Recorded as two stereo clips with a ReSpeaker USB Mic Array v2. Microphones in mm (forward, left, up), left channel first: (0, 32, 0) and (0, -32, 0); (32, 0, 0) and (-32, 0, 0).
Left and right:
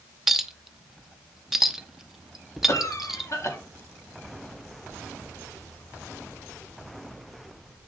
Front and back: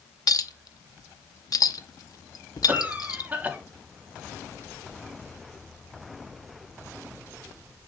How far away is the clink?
About 0.7 m.